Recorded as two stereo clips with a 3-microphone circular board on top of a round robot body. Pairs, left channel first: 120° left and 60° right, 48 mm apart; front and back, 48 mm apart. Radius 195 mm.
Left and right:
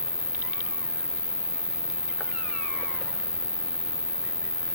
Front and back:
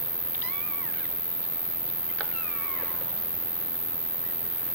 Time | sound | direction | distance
0.0 | an insect | 100° left | 1.0 m